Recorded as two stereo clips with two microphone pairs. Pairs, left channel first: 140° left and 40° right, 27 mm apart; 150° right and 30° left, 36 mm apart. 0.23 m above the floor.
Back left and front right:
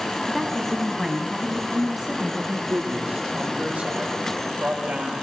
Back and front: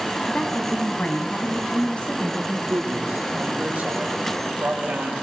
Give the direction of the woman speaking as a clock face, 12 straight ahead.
4 o'clock.